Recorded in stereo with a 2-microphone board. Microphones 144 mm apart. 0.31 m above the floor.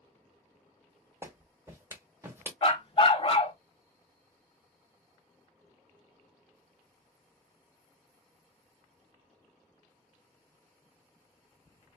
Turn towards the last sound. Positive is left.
turn(degrees=40)  # may be behind; listen again after turning